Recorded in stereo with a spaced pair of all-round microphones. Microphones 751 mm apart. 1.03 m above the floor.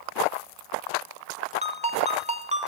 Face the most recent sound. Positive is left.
turn(degrees=-10)  # may be behind; listen again after turning